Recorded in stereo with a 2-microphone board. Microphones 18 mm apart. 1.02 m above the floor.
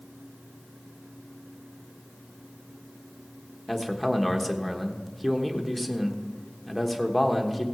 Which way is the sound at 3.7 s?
5° left (ahead or behind).